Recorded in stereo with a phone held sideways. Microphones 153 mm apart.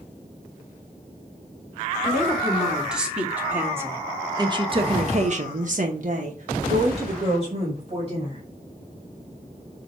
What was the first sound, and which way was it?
A woman speaking, centre (ahead or behind).